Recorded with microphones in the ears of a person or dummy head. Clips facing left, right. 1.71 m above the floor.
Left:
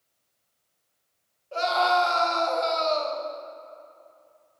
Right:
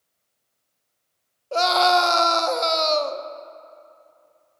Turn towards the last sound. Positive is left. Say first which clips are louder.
# right 5 dB
turn(degrees=-65)  # may be behind; listen again after turning